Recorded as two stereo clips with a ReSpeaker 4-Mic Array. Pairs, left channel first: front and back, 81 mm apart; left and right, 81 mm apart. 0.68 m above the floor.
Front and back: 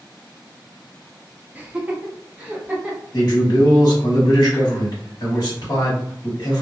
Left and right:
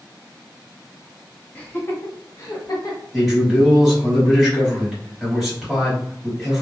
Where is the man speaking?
5° right, 1.6 m.